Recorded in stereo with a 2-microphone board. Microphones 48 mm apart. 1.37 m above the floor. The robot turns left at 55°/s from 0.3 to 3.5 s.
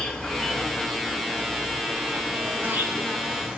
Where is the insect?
25° left, 1.5 m; by 3.6 s 150° right, 1.5 m.